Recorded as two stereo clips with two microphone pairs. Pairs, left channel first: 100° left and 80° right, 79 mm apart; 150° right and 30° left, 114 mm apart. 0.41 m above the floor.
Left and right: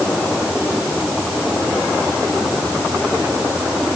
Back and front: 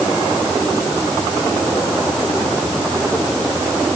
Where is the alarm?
No alarm in this recording.